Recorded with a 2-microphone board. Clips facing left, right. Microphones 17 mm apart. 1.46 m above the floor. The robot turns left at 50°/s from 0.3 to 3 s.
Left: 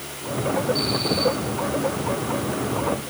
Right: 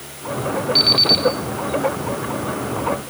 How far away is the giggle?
I don't hear a giggle.